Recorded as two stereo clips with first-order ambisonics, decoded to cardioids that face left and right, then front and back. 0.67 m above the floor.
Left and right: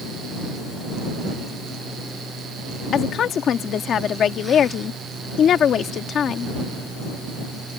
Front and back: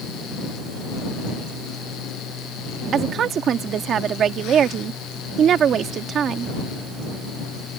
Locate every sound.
2.9 s a woman speaking: 135° left